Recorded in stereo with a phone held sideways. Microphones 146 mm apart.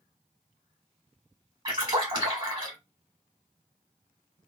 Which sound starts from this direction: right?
A splash, at 1.6 s.